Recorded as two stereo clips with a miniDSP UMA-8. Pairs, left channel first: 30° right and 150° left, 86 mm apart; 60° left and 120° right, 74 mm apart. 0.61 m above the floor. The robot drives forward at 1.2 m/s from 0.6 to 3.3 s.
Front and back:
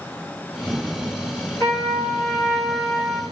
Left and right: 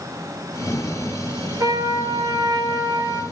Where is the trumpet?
85° right, 9.5 m; by 3.2 s 95° right, 9 m.